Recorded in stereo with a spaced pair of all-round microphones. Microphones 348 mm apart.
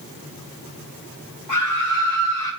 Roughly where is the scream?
Left.